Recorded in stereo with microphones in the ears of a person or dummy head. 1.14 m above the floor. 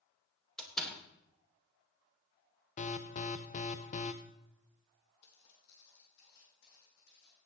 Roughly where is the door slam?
Centre.